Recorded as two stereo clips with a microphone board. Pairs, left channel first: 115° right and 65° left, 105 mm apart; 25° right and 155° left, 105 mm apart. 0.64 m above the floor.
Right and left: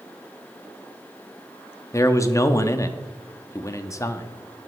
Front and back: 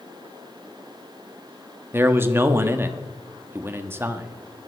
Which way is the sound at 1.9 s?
150° right.